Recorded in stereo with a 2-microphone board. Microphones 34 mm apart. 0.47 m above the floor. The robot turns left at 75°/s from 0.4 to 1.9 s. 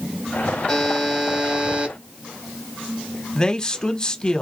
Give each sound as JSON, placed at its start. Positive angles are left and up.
{"t": 0.7, "sound": "a buzzer", "azimuth_deg": 15, "distance_m": 1.4}
{"t": 3.4, "sound": "a man speaking", "side_deg": 25, "distance_m": 1.0}